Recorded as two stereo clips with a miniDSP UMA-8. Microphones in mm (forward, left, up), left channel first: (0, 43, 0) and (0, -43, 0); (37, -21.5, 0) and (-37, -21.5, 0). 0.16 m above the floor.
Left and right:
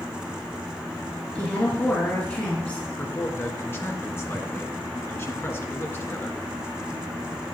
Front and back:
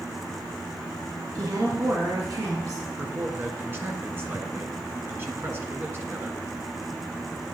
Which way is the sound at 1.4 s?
160° left.